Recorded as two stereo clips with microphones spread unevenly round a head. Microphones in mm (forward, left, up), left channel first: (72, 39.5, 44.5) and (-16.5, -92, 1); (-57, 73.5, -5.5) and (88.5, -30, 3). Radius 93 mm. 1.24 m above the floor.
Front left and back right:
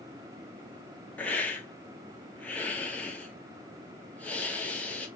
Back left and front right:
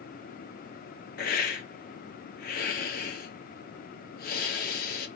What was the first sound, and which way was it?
A hiss, 150° left.